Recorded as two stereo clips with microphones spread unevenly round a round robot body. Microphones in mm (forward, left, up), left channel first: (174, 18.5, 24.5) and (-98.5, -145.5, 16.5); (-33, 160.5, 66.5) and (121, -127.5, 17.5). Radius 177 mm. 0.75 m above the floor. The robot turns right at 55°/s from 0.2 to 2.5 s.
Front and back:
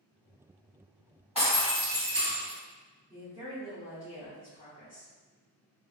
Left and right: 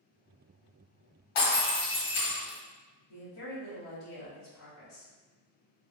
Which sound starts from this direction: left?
Breaking glass, at 1.4 s.